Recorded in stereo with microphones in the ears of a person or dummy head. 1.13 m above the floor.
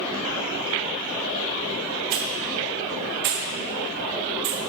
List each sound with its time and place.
2.1 s a hiss: 40° right (ahead or behind), 0.9 m